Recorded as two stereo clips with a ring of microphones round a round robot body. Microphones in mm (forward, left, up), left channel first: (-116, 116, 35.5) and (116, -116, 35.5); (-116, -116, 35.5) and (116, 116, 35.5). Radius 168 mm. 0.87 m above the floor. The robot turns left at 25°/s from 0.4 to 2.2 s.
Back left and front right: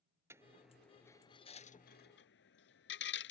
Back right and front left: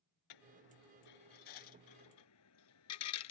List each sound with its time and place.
0.3 s a dropped coin: 125° right; by 3.3 s 170° right